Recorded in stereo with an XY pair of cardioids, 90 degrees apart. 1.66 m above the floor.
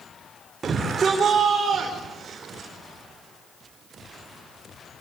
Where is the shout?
45° right, 5 m; by 2.7 s 55° right, 5.5 m.